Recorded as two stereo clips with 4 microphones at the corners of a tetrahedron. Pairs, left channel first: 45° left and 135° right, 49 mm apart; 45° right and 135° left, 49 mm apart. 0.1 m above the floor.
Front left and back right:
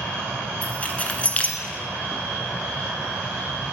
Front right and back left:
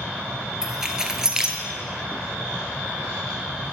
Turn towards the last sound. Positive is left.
turn(degrees=70)